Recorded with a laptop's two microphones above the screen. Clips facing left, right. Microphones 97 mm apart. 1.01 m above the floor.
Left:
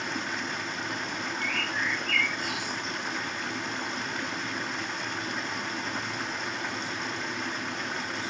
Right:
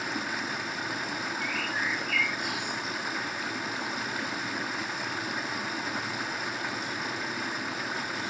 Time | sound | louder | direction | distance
0.0 | running water | even | 5° right (ahead or behind) | 0.7 m
1.4 | a bird | left 1 dB | 10° right (ahead or behind) | 5 m